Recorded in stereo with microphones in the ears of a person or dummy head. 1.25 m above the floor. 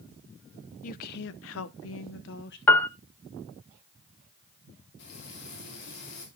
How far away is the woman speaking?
About 0.7 m.